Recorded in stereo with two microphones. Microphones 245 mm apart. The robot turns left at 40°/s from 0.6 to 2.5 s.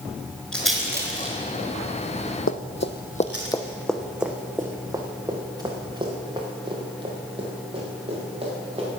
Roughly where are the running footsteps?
Left.